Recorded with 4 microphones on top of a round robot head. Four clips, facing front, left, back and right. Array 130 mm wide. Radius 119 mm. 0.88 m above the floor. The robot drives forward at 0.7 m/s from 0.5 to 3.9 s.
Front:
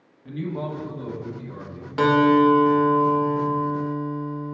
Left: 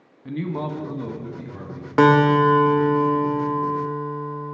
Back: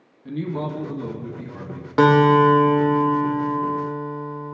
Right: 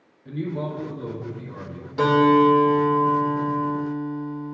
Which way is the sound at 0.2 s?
105° left.